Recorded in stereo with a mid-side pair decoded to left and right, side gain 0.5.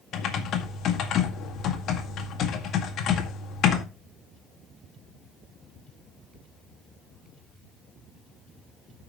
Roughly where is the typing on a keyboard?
Ahead left.